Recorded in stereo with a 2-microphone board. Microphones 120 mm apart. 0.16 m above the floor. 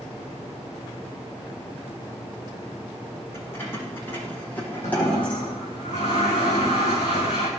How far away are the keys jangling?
About 7.5 m.